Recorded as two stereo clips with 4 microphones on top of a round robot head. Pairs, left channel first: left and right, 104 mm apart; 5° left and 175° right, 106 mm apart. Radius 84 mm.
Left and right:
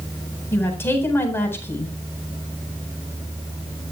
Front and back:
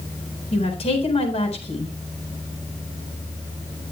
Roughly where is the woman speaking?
Ahead left.